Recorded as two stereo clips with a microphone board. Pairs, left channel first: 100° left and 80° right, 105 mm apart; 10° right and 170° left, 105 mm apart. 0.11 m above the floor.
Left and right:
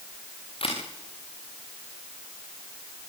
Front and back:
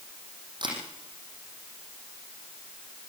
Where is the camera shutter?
125° left, 6 m.